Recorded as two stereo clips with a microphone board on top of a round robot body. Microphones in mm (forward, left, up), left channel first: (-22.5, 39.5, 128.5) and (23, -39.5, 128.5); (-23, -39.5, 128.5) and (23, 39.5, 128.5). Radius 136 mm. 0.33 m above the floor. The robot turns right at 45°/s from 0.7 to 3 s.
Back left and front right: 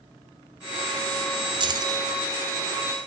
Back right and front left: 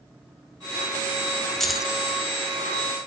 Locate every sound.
1.6 s keys jangling: 35° right, 1.2 m; by 2.0 s 15° right, 1.2 m